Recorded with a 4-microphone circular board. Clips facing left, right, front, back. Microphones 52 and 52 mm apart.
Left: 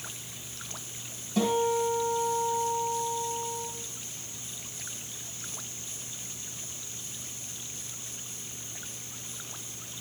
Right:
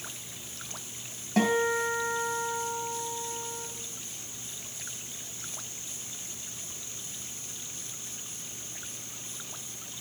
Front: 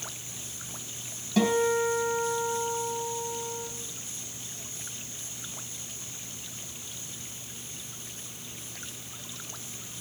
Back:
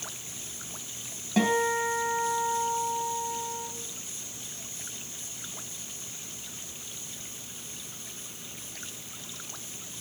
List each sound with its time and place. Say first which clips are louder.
1.4 s a guitar: even, front 1 dB; 120° right, 2.5 m